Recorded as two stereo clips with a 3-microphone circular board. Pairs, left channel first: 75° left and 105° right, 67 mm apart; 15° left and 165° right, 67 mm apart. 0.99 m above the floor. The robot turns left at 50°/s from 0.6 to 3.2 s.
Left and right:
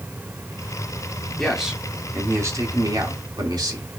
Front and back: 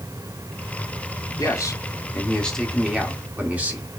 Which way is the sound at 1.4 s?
5° right.